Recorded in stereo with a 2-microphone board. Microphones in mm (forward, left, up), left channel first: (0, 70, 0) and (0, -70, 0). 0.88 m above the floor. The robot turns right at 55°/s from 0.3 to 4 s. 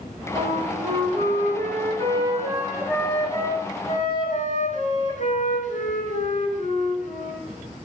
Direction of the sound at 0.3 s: 135° right.